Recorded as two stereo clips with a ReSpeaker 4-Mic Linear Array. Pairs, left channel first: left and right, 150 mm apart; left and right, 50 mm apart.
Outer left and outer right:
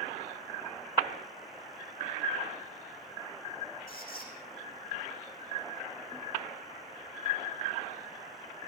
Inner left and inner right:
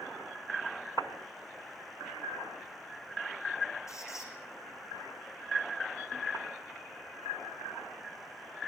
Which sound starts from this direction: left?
A squeak, at 3.9 s.